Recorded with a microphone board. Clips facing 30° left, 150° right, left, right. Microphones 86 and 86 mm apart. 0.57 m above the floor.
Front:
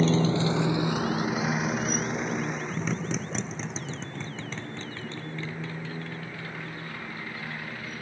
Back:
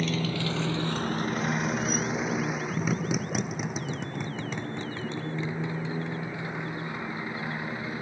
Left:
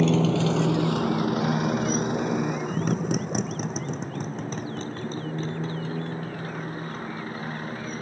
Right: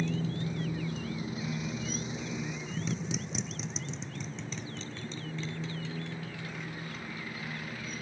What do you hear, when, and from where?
0.0 s a motorcycle: 90° left; by 8.0 s 140° left